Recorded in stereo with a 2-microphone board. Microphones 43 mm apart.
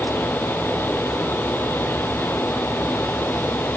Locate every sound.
Only background noise.